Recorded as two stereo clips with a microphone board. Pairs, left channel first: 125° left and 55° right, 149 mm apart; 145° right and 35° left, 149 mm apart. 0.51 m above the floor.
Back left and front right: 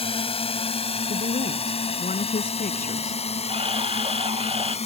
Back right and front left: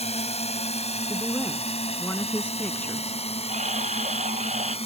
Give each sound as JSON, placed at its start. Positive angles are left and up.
{"t": 0.0, "sound": "a drone", "azimuth_deg": 170}
{"t": 1.1, "sound": "a woman speaking", "azimuth_deg": 135}
{"t": 3.5, "sound": "a camera shutter", "azimuth_deg": -5}